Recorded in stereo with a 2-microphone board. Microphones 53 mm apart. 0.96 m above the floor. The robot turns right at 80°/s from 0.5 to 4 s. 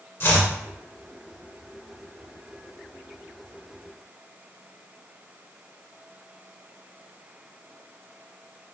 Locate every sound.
0.2 s chopping: 50° left (ahead or behind), 1.3 m